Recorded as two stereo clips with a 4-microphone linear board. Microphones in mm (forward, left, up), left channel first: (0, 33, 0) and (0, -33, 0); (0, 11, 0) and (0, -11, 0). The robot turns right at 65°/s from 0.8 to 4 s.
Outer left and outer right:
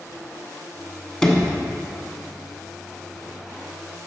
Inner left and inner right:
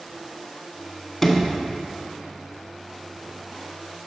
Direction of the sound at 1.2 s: 10° left (ahead or behind).